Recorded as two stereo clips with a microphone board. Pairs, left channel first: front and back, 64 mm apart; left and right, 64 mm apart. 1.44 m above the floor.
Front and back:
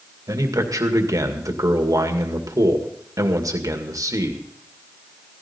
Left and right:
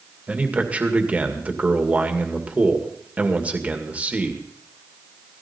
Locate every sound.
0.3 s a man speaking: 160° right, 2.0 m